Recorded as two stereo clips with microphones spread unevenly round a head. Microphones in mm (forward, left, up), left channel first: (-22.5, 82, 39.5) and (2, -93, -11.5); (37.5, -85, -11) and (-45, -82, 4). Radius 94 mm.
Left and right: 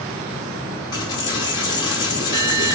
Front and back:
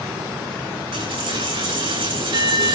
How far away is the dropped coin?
About 6 m.